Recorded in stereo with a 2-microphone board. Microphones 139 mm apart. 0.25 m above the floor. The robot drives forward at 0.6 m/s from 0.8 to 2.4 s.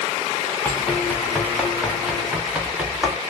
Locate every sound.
0.7 s running footsteps: 10° left (ahead or behind), 1.5 m; by 3.2 s 10° right (ahead or behind), 2.5 m